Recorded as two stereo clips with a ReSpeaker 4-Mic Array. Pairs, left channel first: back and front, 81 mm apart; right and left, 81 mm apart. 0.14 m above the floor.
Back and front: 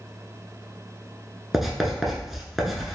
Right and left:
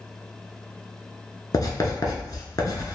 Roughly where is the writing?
Right.